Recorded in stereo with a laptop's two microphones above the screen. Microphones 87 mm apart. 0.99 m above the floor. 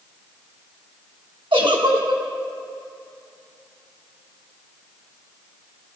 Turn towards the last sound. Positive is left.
turn(degrees=-85)